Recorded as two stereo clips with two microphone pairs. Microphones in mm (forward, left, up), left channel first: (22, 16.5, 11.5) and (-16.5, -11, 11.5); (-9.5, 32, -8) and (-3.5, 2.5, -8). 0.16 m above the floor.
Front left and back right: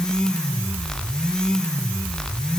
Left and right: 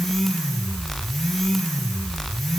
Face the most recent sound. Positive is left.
No sound to turn to.